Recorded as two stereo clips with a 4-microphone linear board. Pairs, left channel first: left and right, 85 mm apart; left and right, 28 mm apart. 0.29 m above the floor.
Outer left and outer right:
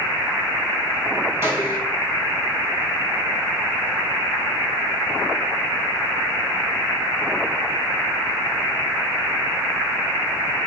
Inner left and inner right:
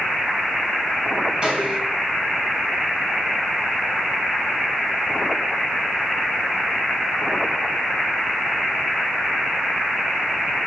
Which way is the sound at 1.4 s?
30° right (ahead or behind).